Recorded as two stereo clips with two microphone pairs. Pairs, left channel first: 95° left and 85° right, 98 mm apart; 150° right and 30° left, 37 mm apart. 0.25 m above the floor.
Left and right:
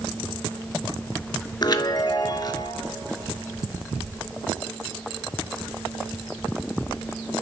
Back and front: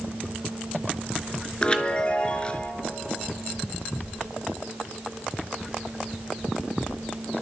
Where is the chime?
145° left, 0.5 m.